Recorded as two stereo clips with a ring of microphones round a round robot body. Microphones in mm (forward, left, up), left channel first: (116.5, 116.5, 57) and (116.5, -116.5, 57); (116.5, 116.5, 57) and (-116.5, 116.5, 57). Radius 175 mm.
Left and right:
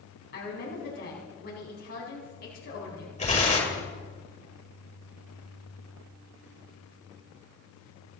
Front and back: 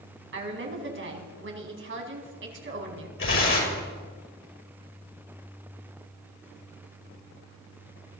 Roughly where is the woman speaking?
Behind left.